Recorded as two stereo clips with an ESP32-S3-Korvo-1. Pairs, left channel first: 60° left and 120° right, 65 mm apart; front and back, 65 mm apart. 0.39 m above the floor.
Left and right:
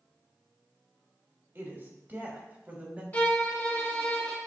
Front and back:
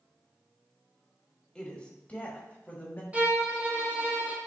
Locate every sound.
1.6 s a woman speaking: 75° right, 2.0 m; by 3.0 s 55° right, 2.5 m
3.1 s a violin: 120° left, 2 m